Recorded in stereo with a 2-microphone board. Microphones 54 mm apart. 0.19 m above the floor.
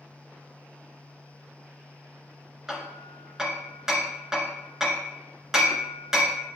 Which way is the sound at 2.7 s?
10° right (ahead or behind).